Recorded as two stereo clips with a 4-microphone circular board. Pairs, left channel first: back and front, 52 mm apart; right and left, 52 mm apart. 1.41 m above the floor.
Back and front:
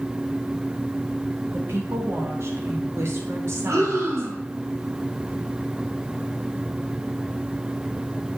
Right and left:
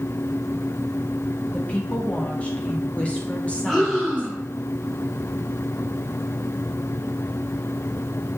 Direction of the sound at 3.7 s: 5° left.